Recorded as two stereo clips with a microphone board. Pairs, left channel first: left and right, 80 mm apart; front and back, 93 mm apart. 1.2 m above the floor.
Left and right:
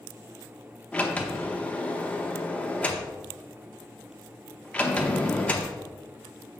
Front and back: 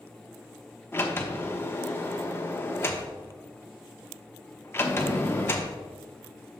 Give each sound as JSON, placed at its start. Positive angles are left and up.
{"t": 0.9, "sound": "a sliding door", "azimuth_deg": 35, "distance_m": 0.8}